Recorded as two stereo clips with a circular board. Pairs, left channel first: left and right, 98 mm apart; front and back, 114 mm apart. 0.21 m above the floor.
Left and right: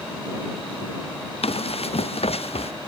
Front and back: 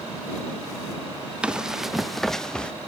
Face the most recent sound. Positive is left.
turn(degrees=80)